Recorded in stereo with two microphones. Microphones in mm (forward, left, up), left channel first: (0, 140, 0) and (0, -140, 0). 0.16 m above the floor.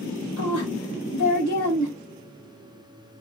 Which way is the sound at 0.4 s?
45° right (ahead or behind).